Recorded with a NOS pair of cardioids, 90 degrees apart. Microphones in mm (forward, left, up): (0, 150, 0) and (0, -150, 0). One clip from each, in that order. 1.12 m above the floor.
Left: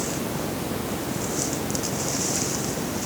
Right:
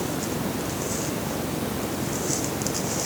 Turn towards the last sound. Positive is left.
No sound to turn to.